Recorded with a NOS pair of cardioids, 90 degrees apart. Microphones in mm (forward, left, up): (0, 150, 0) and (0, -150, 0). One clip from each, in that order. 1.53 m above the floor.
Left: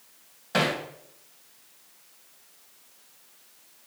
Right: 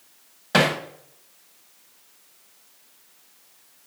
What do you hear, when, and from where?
0.5 s hammering: 50° right, 1.9 m